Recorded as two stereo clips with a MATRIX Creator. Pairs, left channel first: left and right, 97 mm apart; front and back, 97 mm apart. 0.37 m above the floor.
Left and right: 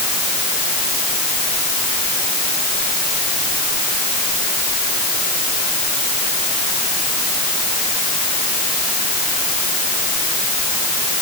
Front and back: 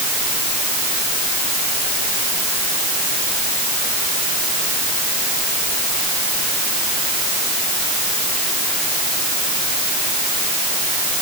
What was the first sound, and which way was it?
Only background noise.